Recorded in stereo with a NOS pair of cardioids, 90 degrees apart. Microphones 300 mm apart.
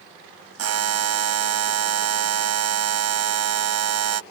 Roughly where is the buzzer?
Ahead right.